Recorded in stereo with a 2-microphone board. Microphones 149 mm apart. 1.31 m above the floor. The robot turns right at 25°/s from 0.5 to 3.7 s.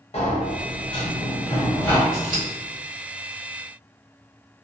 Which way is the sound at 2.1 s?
75° right (ahead or behind).